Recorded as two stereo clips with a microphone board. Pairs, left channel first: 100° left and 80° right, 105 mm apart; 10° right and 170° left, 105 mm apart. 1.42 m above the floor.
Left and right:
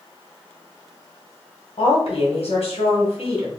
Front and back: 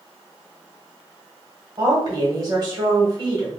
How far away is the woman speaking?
About 1.7 m.